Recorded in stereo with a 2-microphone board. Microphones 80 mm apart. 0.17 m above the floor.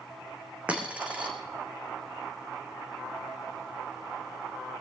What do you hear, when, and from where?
0.7 s a dropped coin: 15° right (ahead or behind), 2 m